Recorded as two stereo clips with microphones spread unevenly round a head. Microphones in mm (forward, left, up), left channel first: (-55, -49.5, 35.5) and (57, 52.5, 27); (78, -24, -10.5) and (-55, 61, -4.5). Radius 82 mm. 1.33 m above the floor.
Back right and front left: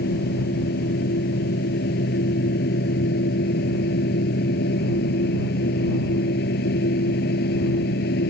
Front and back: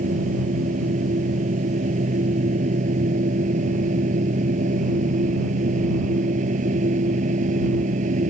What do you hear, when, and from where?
0.0 s a machine running: 165° right